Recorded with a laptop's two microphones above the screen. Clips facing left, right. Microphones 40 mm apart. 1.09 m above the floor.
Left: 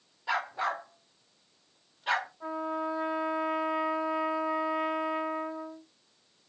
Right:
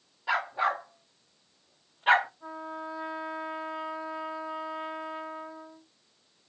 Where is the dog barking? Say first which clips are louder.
Right 3 dB; 10° right (ahead or behind), 1.3 m; by 2.3 s 35° right (ahead or behind), 0.6 m.